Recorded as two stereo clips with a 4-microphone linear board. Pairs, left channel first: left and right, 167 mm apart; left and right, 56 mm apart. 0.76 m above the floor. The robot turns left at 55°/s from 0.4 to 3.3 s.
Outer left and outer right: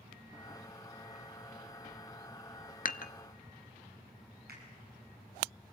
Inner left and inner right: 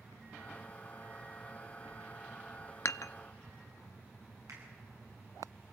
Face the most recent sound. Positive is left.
turn(degrees=-85)